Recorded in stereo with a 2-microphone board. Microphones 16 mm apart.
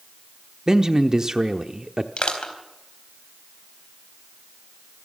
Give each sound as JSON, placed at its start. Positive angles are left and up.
{"t": 0.7, "sound": "a man speaking", "side_deg": -40, "distance_m": 0.9}
{"t": 2.2, "sound": "crushing", "side_deg": 70, "distance_m": 4.0}